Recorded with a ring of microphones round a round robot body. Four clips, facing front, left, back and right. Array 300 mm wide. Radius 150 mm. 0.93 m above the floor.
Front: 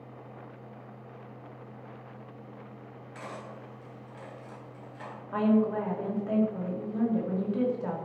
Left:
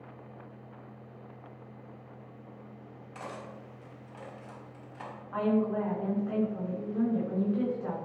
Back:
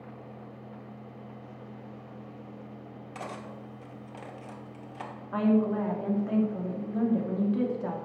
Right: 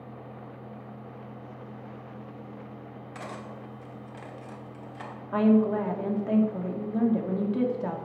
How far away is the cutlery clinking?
About 1.6 m.